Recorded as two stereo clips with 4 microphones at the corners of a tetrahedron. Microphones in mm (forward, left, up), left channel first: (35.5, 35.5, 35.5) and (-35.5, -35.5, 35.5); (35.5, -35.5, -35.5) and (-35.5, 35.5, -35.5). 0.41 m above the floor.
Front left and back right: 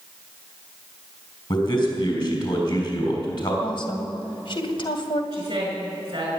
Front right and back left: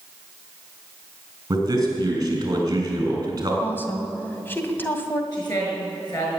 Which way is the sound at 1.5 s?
85° left.